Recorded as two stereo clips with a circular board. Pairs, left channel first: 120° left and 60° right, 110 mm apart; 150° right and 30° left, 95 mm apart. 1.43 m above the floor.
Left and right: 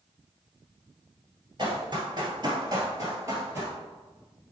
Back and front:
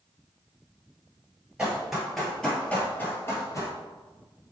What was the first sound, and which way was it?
Running footsteps, 45° right.